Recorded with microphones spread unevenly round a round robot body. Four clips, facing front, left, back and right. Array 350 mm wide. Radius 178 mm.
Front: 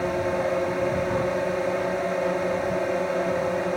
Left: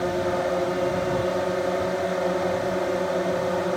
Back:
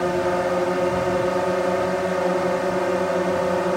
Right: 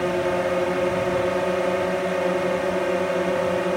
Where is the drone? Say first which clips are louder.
Right 2 dB, back 4 dB; 160° right.